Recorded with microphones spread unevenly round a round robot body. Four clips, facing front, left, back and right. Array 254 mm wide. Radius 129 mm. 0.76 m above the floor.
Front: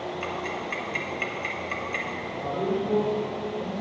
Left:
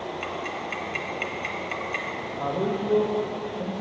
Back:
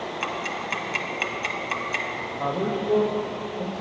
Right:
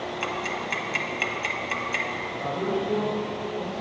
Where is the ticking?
175° right, 0.9 m.